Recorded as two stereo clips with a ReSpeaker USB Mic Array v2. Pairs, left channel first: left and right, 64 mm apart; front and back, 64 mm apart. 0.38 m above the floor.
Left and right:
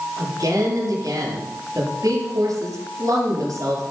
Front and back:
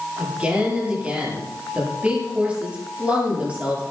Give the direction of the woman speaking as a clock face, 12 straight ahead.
4 o'clock.